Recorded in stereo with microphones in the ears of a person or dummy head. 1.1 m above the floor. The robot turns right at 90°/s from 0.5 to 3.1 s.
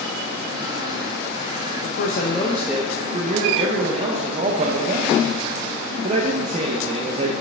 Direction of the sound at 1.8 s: 105° left.